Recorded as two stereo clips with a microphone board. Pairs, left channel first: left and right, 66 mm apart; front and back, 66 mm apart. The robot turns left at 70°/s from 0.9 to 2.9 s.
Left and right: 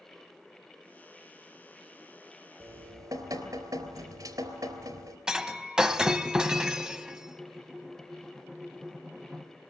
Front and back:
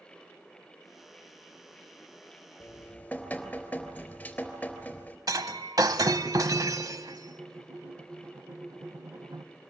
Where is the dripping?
50° right, 3.5 m; by 5.2 s 70° right, 3.5 m.